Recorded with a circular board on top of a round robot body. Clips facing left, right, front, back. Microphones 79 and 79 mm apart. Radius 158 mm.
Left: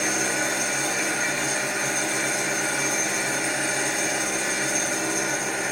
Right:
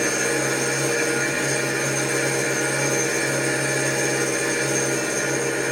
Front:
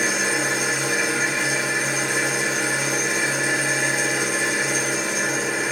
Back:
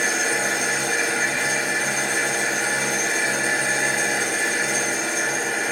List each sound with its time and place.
0.0 s an engine running: 75° right, 1.5 m